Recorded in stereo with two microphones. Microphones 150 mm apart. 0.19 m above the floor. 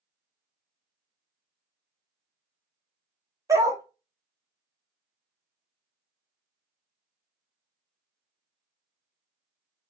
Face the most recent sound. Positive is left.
turn(degrees=-20)  # may be behind; listen again after turning